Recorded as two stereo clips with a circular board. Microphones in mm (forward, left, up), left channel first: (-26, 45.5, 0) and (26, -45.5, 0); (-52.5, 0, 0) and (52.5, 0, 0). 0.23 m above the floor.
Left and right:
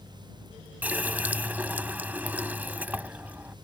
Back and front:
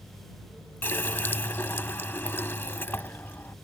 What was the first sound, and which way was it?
A running tap, 125° right.